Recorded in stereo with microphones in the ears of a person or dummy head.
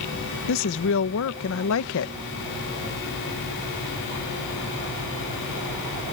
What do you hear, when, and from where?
0.5 s a woman speaking: 70° left (ahead or behind)